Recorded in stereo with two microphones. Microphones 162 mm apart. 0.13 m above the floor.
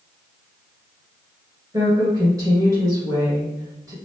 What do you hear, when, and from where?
1.7 s a woman speaking: 20° right (ahead or behind), 1.6 m